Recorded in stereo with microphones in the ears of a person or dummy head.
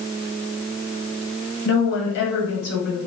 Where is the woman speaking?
80° left, 2.0 m.